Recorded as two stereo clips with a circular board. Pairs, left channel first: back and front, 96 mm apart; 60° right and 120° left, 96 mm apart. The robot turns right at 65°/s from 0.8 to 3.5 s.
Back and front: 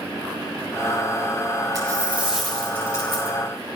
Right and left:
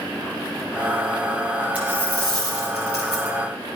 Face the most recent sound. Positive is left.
turn(degrees=160)